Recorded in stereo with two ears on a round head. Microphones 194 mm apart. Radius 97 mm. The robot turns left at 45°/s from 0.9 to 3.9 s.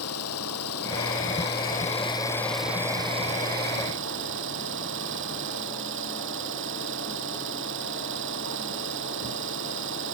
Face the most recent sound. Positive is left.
turn(degrees=-60)